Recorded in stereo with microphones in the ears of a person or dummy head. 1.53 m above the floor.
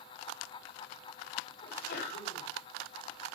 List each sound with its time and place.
1.6 s a sneeze: 70° left (ahead or behind), 6 m